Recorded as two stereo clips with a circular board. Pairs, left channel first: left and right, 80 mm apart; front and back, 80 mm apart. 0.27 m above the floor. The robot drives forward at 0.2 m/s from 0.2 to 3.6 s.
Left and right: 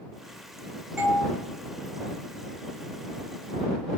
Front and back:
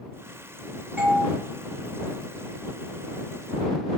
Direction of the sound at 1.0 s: 160° right.